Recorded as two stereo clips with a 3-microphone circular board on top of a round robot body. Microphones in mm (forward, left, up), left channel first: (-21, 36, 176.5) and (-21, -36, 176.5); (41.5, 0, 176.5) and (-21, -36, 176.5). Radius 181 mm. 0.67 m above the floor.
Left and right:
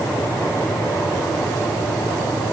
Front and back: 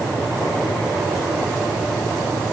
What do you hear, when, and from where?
Only background noise.